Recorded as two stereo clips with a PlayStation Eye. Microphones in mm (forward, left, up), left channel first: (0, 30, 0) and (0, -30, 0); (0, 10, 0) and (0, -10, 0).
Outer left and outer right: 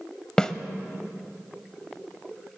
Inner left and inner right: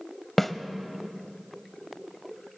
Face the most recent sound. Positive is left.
turn(degrees=15)  # may be behind; listen again after turning